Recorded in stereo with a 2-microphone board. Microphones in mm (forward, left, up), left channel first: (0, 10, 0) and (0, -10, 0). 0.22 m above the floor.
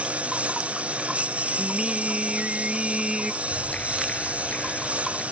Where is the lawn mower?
80° right; by 5.3 s 85° right.